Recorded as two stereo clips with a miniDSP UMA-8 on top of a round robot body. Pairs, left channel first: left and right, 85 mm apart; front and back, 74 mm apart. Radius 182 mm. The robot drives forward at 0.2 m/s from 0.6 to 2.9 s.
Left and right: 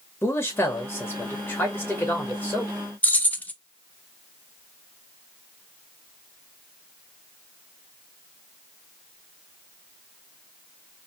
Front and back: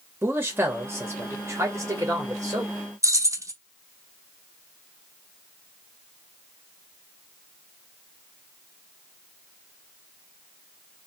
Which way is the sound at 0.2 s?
140° left.